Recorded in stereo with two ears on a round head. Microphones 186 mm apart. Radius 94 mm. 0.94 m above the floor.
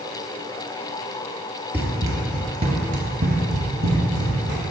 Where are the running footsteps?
10° right (ahead or behind), 1.2 m; by 4.6 s 40° right (ahead or behind), 2 m.